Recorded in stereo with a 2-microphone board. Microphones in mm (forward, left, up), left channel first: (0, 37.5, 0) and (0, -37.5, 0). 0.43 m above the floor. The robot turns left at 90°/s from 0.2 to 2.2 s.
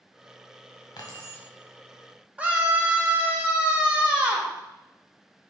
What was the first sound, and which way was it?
Keys jangling, 60° left.